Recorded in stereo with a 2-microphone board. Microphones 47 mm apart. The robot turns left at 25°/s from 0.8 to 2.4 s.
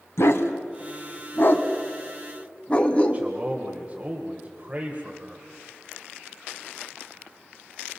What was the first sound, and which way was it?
A dog barking, 65° left (ahead or behind).